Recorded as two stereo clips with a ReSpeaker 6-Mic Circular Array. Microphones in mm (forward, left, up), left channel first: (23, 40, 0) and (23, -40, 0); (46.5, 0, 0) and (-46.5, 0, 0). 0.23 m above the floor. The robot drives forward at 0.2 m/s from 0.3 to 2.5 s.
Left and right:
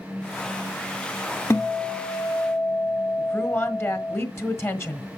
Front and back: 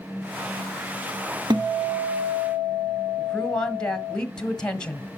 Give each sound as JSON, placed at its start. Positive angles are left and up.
{"t": 1.5, "sound": "a guitar", "azimuth_deg": 145, "distance_m": 1.0}
{"t": 3.2, "sound": "a woman speaking", "azimuth_deg": 75, "distance_m": 1.5}